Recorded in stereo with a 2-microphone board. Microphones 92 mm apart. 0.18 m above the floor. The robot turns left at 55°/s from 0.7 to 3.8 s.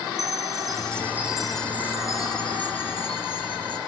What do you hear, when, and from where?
0.2 s a chime: 140° right, 1.0 m; by 3.8 s 50° left, 1.0 m